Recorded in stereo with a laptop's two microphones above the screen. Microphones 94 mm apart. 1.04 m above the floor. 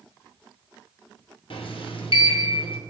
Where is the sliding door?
80° left, 0.6 m.